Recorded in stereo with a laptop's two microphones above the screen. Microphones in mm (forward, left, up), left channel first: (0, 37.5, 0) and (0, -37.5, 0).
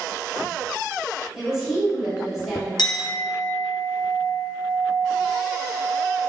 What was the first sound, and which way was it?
A woman speaking, 5° right (ahead or behind).